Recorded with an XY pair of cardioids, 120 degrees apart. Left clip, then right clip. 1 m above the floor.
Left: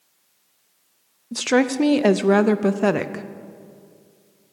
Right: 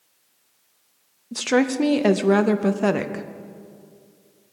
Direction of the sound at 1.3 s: 10° left.